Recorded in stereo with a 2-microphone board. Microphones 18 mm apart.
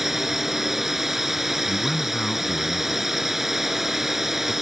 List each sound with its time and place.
0.0 s a drone: 15° right (ahead or behind)
1.7 s a man speaking: 40° left (ahead or behind)